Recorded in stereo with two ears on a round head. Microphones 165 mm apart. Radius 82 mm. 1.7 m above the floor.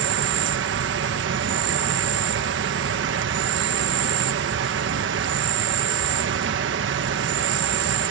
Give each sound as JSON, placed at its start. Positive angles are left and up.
{"t": 0.0, "sound": "an insect", "side_deg": -70}